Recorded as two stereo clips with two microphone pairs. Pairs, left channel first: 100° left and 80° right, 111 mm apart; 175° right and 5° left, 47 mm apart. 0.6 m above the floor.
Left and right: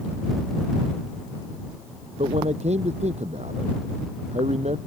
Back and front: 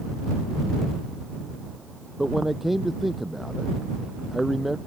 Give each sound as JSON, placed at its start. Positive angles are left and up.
{"t": 2.2, "sound": "a man speaking", "azimuth_deg": -80}